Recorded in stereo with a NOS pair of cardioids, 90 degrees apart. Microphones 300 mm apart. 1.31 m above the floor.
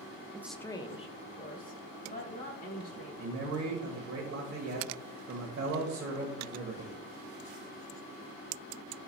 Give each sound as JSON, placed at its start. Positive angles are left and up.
{"t": 0.3, "sound": "a woman speaking", "azimuth_deg": -15, "distance_m": 0.5}
{"t": 3.2, "sound": "a man speaking", "azimuth_deg": -55, "distance_m": 1.3}